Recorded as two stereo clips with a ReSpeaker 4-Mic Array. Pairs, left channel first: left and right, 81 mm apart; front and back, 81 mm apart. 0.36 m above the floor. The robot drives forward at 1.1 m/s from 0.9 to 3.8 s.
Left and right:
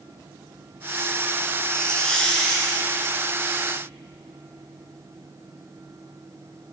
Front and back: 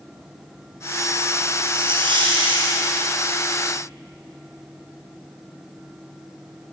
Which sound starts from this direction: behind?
A hiss, at 1.7 s.